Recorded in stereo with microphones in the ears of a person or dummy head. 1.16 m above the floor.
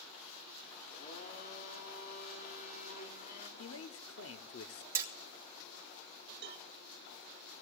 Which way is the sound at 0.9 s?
45° left (ahead or behind).